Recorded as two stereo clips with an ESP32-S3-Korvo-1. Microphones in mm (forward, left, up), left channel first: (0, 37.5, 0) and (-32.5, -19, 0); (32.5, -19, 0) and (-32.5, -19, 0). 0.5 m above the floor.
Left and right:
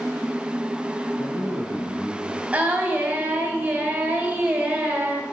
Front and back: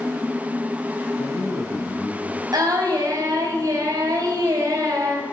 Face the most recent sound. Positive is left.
turn(degrees=170)